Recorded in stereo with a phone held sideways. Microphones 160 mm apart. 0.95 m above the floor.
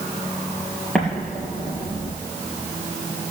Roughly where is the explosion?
Centre.